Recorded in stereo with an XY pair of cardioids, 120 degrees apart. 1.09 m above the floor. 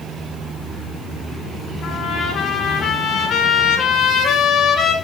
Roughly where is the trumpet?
Ahead left.